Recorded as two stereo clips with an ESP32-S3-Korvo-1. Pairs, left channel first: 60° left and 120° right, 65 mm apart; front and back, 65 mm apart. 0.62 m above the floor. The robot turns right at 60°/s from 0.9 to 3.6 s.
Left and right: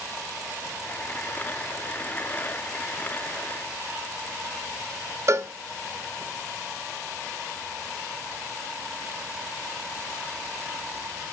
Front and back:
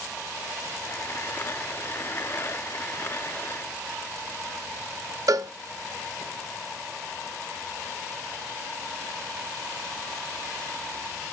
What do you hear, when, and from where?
5.3 s a cowbell: 160° right, 0.5 m